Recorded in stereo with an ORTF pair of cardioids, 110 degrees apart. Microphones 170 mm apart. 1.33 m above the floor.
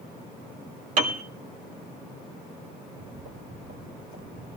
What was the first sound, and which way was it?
A piano, 50° right.